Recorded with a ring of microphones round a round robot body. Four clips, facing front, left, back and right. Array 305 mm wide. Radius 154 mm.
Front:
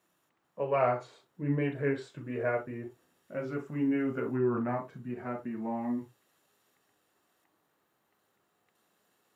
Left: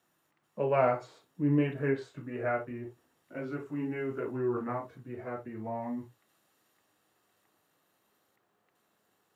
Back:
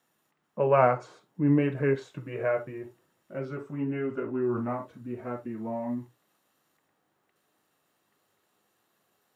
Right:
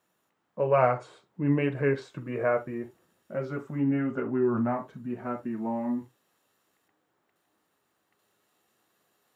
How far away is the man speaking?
About 1.4 m.